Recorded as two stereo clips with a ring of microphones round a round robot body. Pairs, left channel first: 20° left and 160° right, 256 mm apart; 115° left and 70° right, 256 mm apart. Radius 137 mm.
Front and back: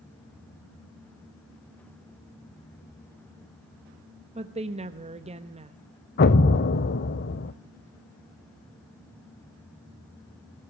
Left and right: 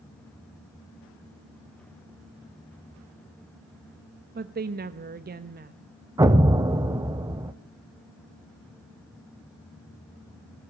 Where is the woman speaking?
100° right, 1.0 m.